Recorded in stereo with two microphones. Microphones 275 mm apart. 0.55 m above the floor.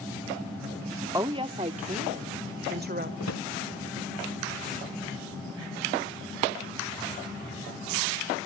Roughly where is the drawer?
Left.